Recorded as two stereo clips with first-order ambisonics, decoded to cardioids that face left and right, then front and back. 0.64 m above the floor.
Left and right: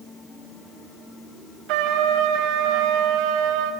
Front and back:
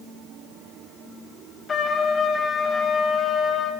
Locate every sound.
1.7 s a trumpet: 70° right, 1.1 m